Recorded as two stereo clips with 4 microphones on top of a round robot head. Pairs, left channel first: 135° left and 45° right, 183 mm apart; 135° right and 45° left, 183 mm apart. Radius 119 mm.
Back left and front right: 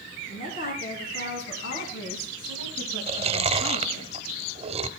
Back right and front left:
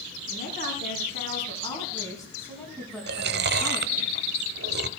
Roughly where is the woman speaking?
Behind.